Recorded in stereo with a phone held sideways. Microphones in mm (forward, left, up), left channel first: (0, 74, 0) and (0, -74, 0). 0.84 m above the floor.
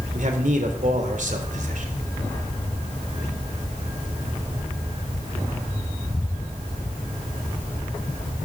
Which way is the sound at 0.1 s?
60° right (ahead or behind).